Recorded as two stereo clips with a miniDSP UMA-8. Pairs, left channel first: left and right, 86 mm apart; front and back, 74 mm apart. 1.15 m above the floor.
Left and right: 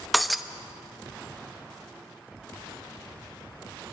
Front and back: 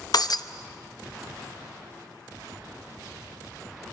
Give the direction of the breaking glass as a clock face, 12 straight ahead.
12 o'clock.